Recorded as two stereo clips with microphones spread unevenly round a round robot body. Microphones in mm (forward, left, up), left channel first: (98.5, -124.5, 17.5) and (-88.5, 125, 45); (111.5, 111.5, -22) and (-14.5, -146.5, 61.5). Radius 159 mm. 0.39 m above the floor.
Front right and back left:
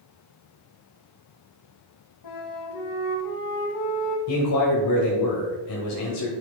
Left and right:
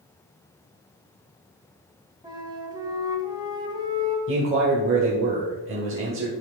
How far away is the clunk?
I don't hear a clunk.